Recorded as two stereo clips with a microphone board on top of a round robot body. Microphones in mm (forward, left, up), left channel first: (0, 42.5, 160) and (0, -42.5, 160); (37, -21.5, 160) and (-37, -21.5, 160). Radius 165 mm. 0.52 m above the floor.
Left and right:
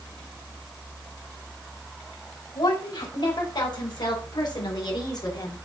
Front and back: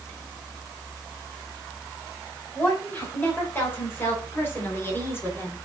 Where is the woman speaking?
60° left, 4 m; by 5.5 s 55° left, 2 m.